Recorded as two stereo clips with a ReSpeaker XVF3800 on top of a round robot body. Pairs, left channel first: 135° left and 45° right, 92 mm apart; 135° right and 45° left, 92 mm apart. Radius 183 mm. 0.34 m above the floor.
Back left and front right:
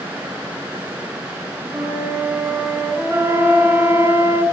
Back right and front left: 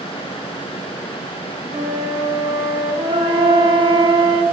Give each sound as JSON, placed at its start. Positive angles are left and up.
{"t": 1.7, "sound": "a flute", "azimuth_deg": 30, "distance_m": 1.9}
{"t": 3.1, "sound": "a flute", "azimuth_deg": 20, "distance_m": 0.9}